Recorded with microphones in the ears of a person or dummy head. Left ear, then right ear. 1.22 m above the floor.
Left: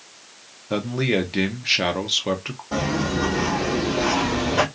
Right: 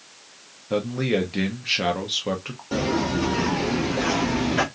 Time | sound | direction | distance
0.7 | a man speaking | 15° left (ahead or behind) | 0.5 m
2.7 | footsteps | 55° right (ahead or behind) | 1.9 m